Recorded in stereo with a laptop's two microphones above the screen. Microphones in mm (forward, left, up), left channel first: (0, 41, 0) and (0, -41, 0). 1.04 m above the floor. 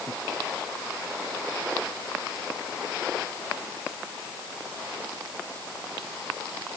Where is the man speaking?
I don't hear a man speaking.